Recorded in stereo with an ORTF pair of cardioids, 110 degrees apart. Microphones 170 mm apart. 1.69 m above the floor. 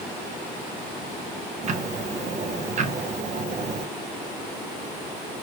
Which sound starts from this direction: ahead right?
Ticking, at 1.6 s.